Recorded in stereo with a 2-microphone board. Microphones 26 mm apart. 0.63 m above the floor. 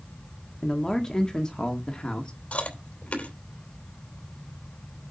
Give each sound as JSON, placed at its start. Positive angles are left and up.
{"t": 0.6, "sound": "a man speaking", "side_deg": 25, "distance_m": 1.6}
{"t": 2.5, "sound": "chewing", "side_deg": 70, "distance_m": 3.0}